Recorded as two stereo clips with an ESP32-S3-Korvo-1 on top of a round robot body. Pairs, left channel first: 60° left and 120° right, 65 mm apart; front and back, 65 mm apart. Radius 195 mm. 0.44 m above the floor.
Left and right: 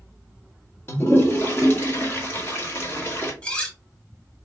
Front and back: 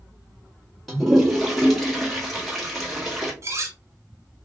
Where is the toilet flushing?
90° left, 1.7 m.